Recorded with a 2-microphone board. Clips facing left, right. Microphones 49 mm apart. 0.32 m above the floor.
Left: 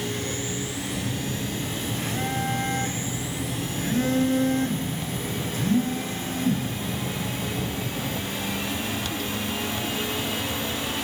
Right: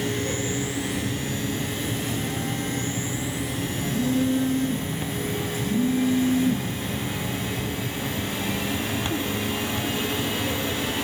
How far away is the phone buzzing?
About 2.5 m.